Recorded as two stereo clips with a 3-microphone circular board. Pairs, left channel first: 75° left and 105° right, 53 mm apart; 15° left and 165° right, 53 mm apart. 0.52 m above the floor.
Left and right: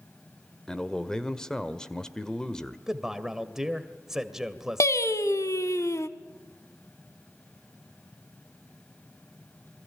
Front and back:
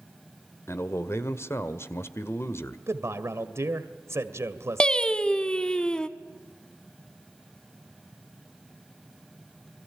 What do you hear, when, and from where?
0.7 s a man speaking: straight ahead, 1.8 m
2.9 s a man speaking: 175° left, 2.0 m
4.8 s singing: 90° left, 1.0 m